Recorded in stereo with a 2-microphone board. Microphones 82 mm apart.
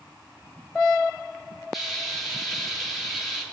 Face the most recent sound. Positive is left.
turn(degrees=0)  # may be behind; listen again after turning